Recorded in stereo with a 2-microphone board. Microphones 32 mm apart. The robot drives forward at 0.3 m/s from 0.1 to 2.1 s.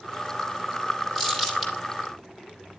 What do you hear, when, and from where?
1.1 s crumpling: 5° left (ahead or behind), 7.5 m